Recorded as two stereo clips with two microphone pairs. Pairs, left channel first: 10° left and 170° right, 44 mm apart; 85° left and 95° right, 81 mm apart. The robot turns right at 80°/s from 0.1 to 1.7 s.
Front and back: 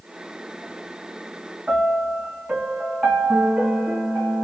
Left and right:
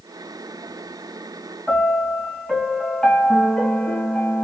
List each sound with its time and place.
1.7 s a piano: 165° left, 1.8 m